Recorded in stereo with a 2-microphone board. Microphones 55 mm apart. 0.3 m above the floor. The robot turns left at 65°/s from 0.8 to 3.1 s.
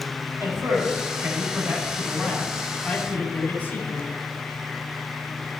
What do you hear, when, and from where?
0.4 s a man speaking: 75° right, 3.5 m; by 4.1 s 135° left, 3.5 m